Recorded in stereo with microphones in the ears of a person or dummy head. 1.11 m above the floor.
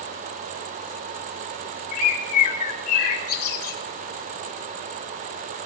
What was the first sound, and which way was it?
A bird, 45° left (ahead or behind).